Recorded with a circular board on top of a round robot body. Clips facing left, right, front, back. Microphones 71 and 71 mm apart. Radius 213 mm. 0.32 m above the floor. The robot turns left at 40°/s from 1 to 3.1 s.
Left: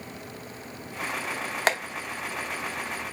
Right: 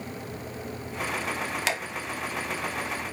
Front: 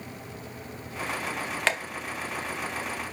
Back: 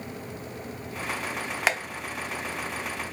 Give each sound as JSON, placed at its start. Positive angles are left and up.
{"t": 1.7, "sound": "tapping", "azimuth_deg": 105, "distance_m": 1.0}